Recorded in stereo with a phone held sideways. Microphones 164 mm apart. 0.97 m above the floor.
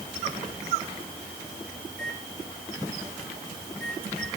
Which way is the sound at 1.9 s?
5° left (ahead or behind).